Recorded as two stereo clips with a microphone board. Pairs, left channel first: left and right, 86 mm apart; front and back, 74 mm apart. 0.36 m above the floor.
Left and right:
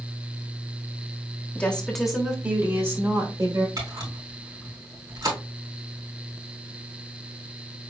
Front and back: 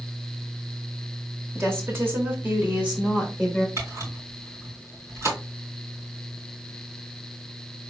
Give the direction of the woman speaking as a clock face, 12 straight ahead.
7 o'clock.